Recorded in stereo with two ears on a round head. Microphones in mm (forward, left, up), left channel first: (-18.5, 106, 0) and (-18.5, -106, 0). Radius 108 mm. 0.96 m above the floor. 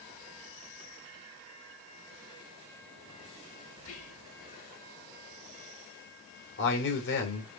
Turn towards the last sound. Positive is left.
turn(degrees=50)  # may be behind; listen again after turning